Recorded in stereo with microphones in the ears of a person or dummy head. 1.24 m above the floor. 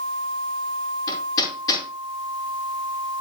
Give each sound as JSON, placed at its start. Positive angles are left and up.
{"t": 1.1, "sound": "hammering", "side_deg": 20, "distance_m": 5.5}